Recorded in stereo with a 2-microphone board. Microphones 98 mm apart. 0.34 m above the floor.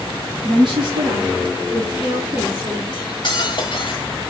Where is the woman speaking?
60° right (ahead or behind), 2.0 m; by 2.8 s 35° right (ahead or behind), 2.5 m.